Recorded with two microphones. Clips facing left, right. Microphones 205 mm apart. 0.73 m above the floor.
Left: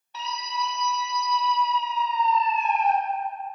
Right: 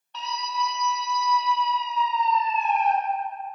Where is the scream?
5° left (ahead or behind), 1.5 m; by 2.9 s 25° right (ahead or behind), 1.1 m.